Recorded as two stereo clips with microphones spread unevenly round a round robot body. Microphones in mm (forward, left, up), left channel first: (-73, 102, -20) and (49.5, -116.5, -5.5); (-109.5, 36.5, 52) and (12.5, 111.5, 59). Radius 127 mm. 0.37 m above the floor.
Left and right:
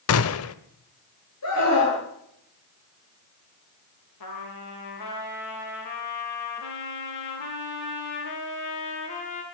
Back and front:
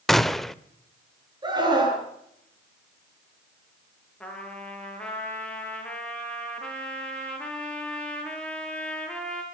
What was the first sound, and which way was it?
A gunshot, 125° left.